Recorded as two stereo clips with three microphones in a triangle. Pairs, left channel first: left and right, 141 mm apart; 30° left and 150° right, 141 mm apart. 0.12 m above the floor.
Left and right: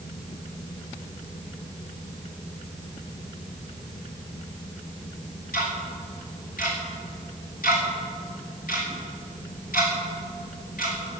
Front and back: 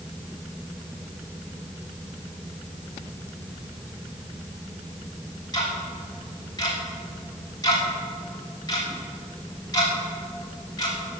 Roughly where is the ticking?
Left.